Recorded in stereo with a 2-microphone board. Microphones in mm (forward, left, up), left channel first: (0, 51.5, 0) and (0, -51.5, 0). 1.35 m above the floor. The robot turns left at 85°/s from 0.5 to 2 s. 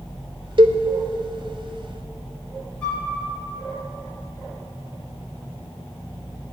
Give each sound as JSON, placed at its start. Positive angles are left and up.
{"t": 0.6, "sound": "a cowbell", "side_deg": -55, "distance_m": 0.9}
{"t": 2.8, "sound": "a flute", "side_deg": 10, "distance_m": 4.0}